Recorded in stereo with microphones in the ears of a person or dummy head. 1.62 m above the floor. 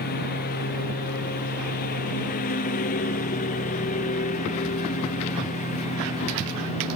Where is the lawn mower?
45° left (ahead or behind); by 7.0 s 35° left (ahead or behind).